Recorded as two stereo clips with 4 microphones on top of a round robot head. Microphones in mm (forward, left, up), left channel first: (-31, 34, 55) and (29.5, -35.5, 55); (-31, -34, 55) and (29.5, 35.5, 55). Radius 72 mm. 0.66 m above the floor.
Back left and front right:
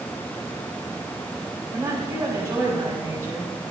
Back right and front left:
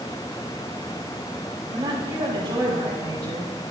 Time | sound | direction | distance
1.7 | a woman speaking | 15° left | 5.5 m